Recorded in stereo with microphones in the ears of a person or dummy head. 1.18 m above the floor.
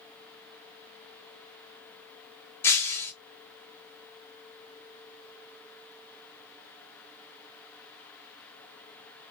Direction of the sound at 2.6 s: 15° left (ahead or behind).